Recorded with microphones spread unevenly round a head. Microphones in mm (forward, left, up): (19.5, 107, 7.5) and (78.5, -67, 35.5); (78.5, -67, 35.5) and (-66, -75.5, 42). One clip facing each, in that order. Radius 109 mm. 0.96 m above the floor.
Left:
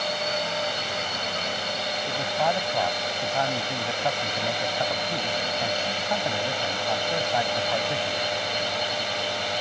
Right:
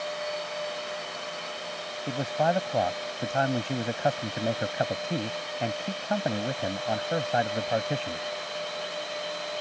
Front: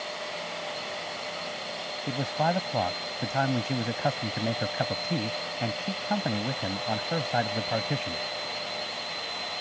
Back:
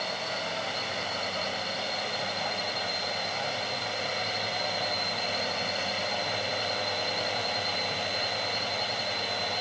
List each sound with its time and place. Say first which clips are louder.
0.0 s a drone: left 4 dB, back 2 dB; 130° left
2.1 s a man speaking: right 1 dB, front 6 dB; 10° right